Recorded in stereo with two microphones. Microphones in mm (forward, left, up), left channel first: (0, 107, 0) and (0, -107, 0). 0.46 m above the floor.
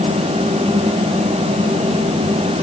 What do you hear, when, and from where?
Only background noise.